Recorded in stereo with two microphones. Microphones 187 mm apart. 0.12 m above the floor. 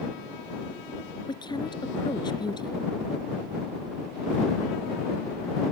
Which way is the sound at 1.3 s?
25° left (ahead or behind).